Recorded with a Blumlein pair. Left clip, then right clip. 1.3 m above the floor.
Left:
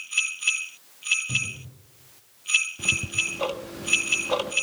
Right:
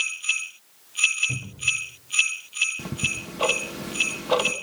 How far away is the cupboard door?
About 2.5 m.